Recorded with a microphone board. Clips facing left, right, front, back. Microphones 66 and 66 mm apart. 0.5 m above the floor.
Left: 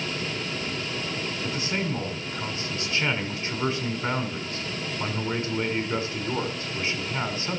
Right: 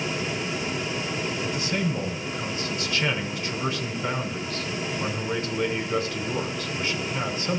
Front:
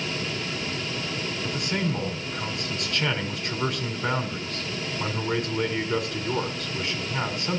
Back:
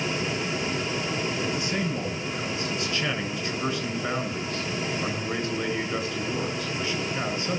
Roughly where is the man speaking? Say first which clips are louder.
Even, even; ahead left.